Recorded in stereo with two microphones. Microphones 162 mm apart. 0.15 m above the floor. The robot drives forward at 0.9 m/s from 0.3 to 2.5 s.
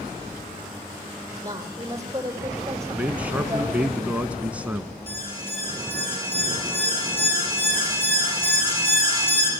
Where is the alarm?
35° left (ahead or behind), 6 m.